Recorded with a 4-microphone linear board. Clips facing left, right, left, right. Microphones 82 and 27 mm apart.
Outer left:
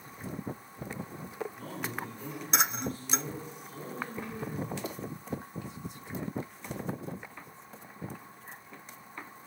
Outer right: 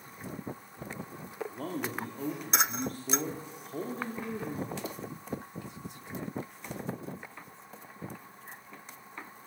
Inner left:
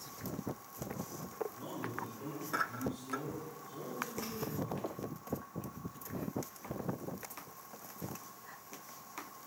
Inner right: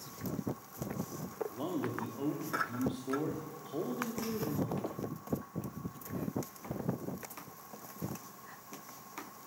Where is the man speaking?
65° right (ahead or behind), 2.5 m.